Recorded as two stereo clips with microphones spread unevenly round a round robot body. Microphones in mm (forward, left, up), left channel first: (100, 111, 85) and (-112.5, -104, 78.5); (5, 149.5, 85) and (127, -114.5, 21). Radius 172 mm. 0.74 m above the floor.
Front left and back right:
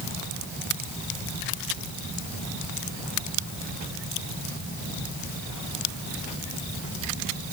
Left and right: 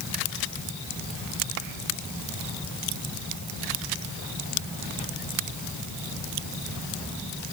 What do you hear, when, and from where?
Only background noise.